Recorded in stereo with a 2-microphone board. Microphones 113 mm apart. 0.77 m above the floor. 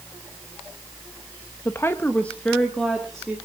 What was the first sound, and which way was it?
A woman speaking, 25° left (ahead or behind).